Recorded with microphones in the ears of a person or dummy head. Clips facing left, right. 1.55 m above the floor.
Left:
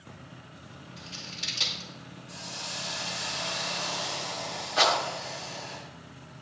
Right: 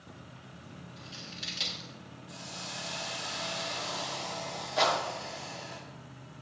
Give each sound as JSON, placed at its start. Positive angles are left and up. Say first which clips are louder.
{"t": 1.0, "sound": "scissors", "louder": "left 2 dB", "side_deg": -10, "distance_m": 0.8}
{"t": 2.3, "sound": "a hiss", "louder": "left 1 dB", "side_deg": -35, "distance_m": 3.0}
{"t": 4.8, "sound": "a rattle", "louder": "left 2 dB", "side_deg": 0, "distance_m": 1.0}